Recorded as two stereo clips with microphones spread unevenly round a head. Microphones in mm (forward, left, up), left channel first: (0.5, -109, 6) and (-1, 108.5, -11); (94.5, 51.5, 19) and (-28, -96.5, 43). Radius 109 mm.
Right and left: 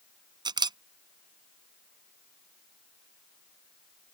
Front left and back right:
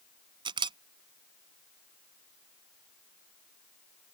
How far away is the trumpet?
I don't hear a trumpet.